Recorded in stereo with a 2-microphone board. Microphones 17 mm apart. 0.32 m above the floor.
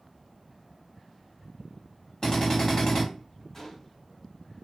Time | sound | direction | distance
2.2 | a drill | 40° left (ahead or behind) | 1.8 m
3.5 | a gunshot | 25° left (ahead or behind) | 1.3 m